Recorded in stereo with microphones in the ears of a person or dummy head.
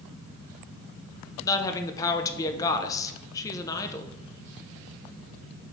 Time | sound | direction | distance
1.4 | a woman speaking | 15° left (ahead or behind) | 0.8 m